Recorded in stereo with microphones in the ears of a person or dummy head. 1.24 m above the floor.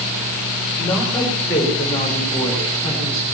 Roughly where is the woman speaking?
Centre.